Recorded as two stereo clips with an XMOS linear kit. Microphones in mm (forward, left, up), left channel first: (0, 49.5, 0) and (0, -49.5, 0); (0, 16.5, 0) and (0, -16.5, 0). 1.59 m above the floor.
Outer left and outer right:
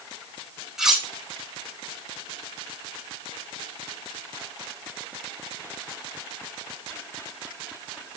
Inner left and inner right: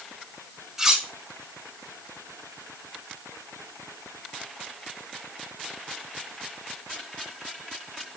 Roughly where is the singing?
No singing in this recording.